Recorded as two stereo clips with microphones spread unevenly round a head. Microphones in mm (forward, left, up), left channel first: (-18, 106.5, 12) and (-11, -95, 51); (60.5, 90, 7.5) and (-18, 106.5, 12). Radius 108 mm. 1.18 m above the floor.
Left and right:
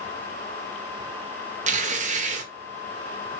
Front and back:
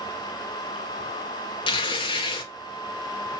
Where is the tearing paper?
30° right, 1.7 m.